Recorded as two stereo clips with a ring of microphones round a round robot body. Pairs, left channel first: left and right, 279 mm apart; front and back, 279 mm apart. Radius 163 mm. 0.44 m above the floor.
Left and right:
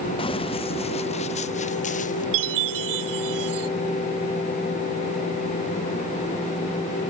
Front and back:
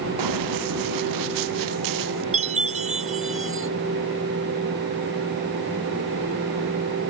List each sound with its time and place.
0.2 s running footsteps: 165° left; by 2.2 s 155° left
2.3 s a chime: 115° right